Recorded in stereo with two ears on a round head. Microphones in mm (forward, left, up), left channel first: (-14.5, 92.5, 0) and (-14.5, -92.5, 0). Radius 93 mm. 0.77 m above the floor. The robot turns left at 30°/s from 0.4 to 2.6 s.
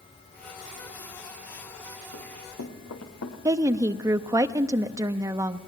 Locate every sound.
2.1 s running footsteps: 70° left (ahead or behind), 4 m; by 3.4 s 75° left (ahead or behind), 3.5 m
3.5 s a woman speaking: 15° right (ahead or behind), 0.7 m